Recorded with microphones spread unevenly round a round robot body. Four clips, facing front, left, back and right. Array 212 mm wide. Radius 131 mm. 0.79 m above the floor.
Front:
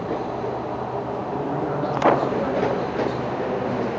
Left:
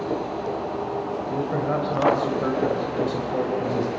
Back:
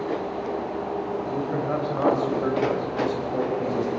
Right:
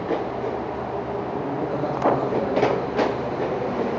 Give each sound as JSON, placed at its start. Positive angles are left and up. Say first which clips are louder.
{"t": 1.3, "sound": "a man speaking", "louder": "left 4 dB, front 1 dB", "azimuth_deg": 130, "distance_m": 4.0}